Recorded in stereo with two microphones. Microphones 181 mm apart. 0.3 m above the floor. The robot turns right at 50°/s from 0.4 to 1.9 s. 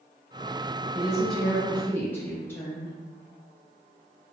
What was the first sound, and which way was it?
A woman speaking, 5° right (ahead or behind).